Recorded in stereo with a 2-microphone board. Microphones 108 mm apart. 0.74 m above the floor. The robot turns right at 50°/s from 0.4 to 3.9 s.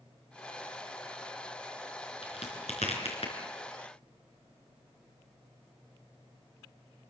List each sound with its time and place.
2.2 s a crack: 60° left (ahead or behind), 4.5 m